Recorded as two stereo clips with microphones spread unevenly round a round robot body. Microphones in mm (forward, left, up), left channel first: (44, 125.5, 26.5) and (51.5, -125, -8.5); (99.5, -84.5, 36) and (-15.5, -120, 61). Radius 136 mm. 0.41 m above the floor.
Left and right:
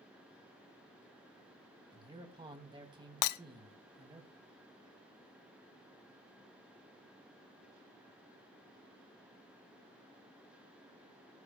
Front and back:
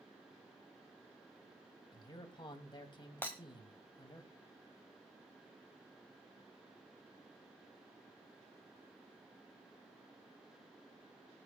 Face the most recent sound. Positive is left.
turn(degrees=95)